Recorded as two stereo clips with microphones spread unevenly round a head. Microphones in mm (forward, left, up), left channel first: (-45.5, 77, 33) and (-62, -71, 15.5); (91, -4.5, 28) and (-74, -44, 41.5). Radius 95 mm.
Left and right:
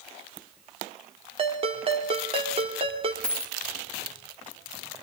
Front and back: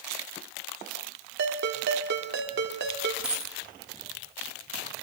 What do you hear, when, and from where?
1.4 s a ringtone: 150° right, 2.5 m
3.2 s a dropped coin: 125° left, 1.0 m